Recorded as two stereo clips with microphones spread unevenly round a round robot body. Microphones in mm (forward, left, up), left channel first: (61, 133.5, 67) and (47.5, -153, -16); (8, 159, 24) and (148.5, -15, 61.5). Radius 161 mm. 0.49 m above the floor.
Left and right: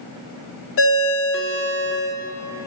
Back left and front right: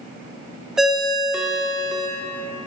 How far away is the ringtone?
About 0.8 m.